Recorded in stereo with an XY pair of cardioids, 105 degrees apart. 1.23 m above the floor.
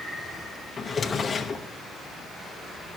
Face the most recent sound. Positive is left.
turn(degrees=35)